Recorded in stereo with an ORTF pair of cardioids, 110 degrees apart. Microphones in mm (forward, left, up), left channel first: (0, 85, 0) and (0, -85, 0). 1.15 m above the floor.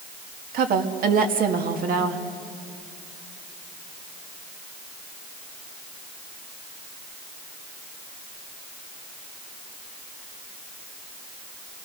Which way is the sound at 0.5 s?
60° right.